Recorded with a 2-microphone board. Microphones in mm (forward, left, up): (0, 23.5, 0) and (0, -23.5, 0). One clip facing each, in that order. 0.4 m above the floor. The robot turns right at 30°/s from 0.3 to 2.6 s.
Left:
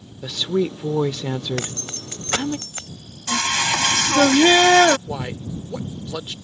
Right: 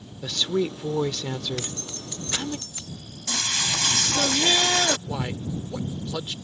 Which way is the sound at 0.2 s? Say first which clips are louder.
Left 3 dB; 10° left (ahead or behind).